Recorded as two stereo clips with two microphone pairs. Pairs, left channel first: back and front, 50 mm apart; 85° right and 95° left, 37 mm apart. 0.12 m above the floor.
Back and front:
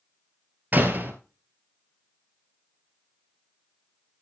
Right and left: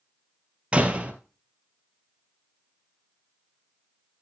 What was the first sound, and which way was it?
A door slam, 45° left.